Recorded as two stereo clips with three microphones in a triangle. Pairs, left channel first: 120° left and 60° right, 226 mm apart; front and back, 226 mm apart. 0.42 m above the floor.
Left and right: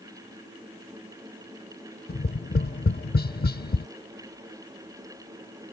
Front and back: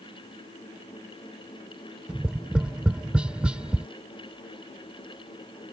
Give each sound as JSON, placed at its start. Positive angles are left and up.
{"t": 2.1, "sound": "tapping", "azimuth_deg": 95}